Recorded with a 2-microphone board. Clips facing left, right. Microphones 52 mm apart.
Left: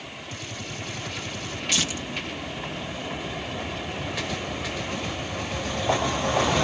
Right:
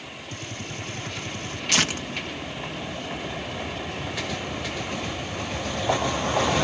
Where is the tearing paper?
60° right (ahead or behind).